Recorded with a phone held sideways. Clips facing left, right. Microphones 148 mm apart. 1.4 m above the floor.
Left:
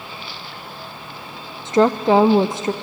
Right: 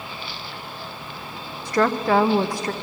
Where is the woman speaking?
20° left (ahead or behind), 0.5 m.